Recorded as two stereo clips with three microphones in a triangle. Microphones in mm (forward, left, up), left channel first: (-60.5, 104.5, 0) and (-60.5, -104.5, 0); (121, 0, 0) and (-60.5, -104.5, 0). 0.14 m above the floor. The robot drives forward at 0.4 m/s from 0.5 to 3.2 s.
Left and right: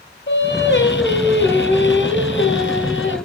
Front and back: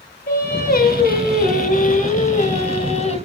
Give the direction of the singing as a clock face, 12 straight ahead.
10 o'clock.